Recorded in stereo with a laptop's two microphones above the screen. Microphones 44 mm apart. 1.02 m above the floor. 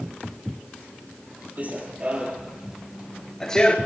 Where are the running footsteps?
40° right (ahead or behind), 1.6 m; by 3.8 s 20° left (ahead or behind), 1.0 m.